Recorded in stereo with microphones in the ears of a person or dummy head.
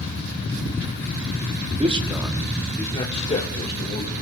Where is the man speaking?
35° right (ahead or behind), 1.4 m; by 4.1 s 40° left (ahead or behind), 3 m.